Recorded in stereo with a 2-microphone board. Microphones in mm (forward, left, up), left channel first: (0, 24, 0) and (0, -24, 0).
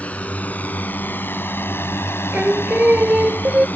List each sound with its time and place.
0.0 s a drone: 30° left (ahead or behind); by 3.8 s 40° left (ahead or behind)
2.3 s singing: 30° right (ahead or behind)